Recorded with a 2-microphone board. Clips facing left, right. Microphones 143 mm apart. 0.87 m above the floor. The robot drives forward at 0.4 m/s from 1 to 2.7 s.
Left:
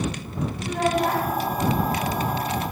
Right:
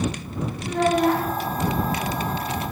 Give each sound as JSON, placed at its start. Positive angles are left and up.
{"t": 0.6, "sound": "a child speaking", "side_deg": 5, "distance_m": 1.0}